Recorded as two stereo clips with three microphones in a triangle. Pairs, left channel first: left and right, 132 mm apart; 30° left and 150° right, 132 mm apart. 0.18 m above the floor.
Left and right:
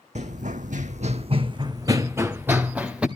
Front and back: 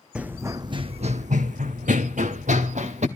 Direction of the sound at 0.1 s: 70° right.